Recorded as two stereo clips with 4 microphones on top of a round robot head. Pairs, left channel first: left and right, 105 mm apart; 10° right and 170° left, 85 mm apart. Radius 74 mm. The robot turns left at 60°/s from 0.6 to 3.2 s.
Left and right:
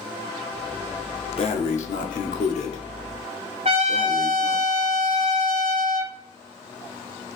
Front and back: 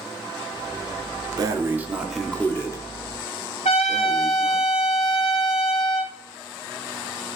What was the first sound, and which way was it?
Breathing, 125° left.